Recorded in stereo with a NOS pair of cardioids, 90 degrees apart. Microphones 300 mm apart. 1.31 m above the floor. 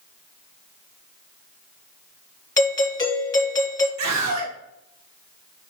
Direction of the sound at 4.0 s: 70° right.